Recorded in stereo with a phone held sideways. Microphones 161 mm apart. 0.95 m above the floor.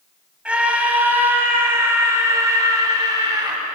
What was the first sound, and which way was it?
A scream, 5° right (ahead or behind).